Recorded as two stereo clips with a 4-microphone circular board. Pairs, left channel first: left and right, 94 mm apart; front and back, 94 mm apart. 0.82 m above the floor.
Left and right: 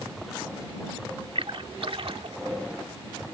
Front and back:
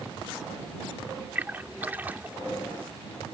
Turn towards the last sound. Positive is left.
turn(degrees=-110)